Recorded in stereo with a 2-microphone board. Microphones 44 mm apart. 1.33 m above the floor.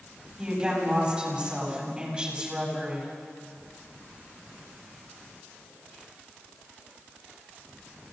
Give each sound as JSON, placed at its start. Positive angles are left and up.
{"t": 0.4, "sound": "a woman speaking", "side_deg": -20, "distance_m": 9.0}